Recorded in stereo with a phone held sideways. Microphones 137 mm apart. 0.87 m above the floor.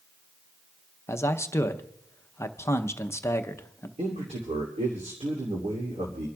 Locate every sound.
1.1 s a man speaking: 20° left (ahead or behind), 0.7 m
4.0 s a man speaking: 55° right (ahead or behind), 2.5 m